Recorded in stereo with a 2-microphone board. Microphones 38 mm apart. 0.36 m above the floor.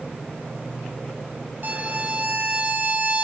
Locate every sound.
1.6 s a violin: 45° right (ahead or behind), 2 m